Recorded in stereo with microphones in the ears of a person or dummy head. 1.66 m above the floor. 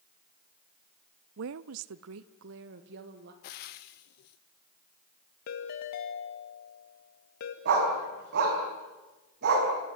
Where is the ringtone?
50° left (ahead or behind), 1.8 m.